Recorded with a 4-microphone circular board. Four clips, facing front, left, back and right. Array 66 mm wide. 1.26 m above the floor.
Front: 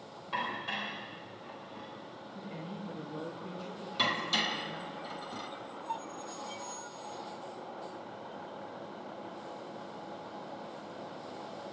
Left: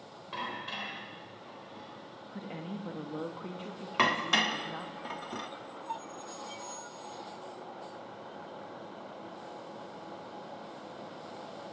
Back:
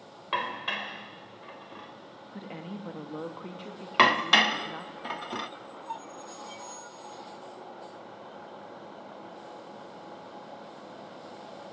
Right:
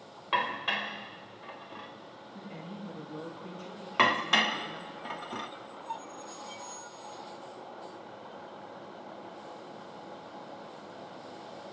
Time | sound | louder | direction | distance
0.3 | dishes clattering | right 8 dB, back 4 dB | 135° right | 3 m
2.3 | a woman speaking | left 4 dB, back 4 dB | 150° left | 2.5 m
4.0 | dishes clattering | right 2 dB, back 11 dB | 170° right | 0.8 m